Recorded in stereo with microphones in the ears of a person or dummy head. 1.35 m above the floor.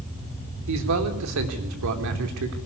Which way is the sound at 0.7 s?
85° right.